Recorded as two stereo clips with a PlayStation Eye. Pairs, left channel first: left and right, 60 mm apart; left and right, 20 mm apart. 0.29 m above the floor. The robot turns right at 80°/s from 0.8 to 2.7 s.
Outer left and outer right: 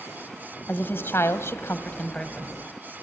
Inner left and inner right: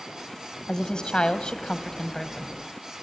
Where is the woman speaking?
45° left, 1.5 m; by 2.6 s 170° right, 1.5 m.